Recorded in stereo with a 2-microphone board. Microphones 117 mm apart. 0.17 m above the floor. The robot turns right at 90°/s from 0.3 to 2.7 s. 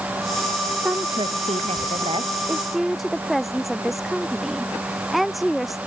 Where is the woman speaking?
170° right; by 5.8 s straight ahead.